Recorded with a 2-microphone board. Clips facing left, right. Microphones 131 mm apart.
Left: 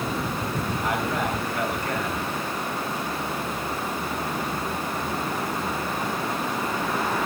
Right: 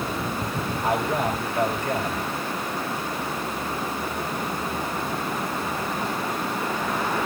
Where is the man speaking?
25° right (ahead or behind), 4 m.